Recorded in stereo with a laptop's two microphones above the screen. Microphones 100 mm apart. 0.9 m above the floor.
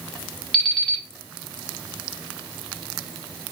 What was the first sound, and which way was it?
An alarm clock, 5° left (ahead or behind).